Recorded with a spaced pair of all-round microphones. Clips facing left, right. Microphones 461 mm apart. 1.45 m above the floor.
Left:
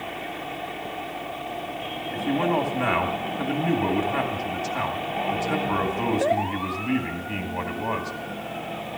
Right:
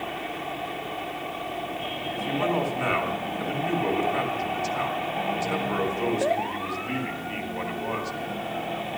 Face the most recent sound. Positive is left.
turn(degrees=70)  # may be behind; listen again after turning